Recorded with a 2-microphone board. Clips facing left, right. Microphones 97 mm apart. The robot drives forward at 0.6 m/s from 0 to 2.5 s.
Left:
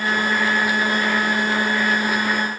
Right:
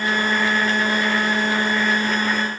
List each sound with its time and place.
Only background noise.